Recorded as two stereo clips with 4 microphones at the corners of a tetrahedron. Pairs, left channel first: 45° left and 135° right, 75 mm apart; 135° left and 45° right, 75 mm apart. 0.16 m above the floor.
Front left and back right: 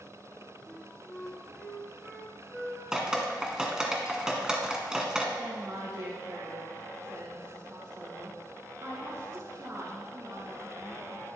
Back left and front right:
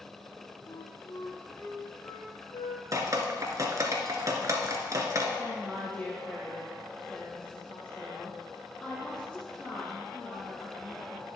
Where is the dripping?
55° right, 1.6 m.